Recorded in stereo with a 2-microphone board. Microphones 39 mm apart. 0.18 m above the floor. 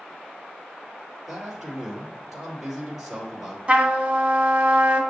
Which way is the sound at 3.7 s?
25° right (ahead or behind).